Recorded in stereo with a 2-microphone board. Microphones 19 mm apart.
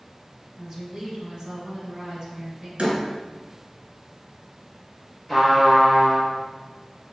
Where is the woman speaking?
40° right (ahead or behind), 1.2 m.